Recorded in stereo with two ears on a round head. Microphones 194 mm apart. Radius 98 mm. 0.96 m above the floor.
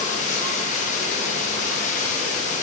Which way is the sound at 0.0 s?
35° left (ahead or behind).